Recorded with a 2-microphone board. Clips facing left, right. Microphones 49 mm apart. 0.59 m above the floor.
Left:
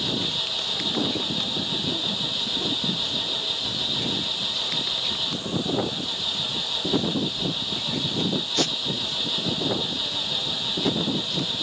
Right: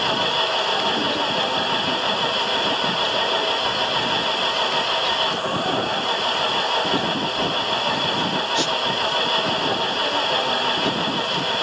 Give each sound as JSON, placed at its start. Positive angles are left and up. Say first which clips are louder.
{"t": 0.0, "sound": "an engine running", "louder": "right 8 dB", "side_deg": -55}